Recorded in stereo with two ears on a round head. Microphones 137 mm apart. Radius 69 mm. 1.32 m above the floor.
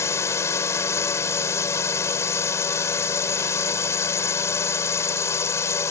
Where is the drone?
20° left (ahead or behind).